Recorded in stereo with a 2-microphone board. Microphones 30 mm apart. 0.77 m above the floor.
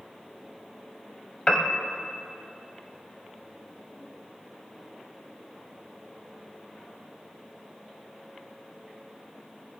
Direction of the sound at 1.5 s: 20° left (ahead or behind).